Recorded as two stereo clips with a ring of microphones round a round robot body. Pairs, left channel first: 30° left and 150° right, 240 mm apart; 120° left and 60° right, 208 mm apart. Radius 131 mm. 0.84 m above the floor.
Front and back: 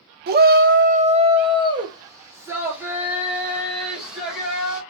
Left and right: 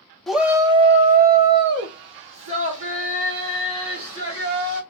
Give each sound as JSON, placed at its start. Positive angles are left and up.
{"t": 0.3, "sound": "a shout", "azimuth_deg": -150, "distance_m": 0.7}